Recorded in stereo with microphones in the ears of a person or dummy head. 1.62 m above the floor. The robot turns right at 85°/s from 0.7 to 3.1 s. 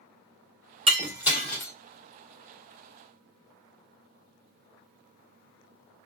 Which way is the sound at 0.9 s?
35° right (ahead or behind).